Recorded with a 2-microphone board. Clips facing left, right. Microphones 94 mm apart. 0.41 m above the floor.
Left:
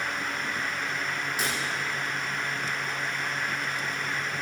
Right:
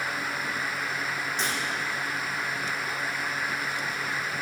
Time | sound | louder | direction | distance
1.4 | breaking glass | even | 10° left (ahead or behind) | 6.5 m